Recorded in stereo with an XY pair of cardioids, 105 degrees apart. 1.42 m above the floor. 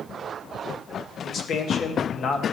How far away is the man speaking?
About 1.5 m.